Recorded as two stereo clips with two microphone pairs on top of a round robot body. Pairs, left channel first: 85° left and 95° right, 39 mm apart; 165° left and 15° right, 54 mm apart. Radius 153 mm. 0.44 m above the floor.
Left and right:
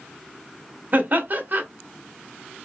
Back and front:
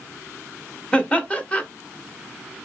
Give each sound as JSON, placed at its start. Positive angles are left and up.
{"t": 0.9, "sound": "laughter", "azimuth_deg": -130, "distance_m": 1.0}